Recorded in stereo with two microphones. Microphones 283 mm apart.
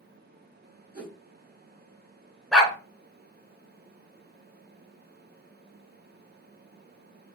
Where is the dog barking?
Centre (ahead or behind), 1.2 m.